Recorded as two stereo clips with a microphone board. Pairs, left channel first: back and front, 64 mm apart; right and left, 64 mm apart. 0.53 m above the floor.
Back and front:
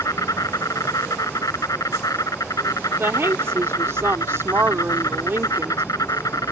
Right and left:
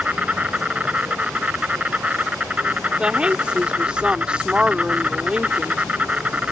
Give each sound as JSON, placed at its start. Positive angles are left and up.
{"t": 0.0, "sound": "an insect", "azimuth_deg": 160}
{"t": 3.0, "sound": "a woman speaking", "azimuth_deg": 25}